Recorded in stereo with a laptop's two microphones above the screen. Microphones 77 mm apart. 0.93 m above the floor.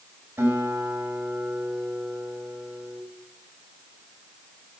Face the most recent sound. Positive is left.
turn(degrees=-30)  # may be behind; listen again after turning